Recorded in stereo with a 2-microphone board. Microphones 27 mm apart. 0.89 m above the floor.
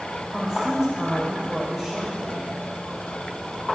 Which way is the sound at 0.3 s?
Centre (ahead or behind).